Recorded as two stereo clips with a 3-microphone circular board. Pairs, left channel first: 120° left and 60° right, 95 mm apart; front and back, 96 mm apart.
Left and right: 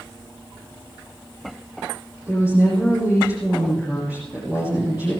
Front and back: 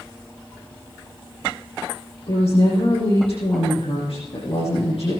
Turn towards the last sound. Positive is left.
turn(degrees=10)